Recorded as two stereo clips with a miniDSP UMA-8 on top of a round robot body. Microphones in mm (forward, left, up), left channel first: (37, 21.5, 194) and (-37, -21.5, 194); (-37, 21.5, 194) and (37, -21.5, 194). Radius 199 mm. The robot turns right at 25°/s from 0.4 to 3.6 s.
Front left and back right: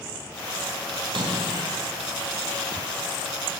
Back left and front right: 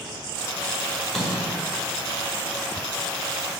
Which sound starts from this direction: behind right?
A splash, at 1.0 s.